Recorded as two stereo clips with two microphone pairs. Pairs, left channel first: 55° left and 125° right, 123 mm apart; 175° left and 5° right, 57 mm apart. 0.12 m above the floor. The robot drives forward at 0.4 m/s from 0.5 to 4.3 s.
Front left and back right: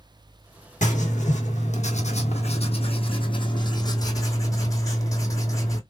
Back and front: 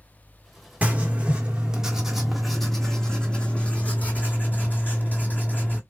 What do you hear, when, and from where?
0.8 s writing: 60° left, 1.4 m; by 5.8 s 120° left, 1.4 m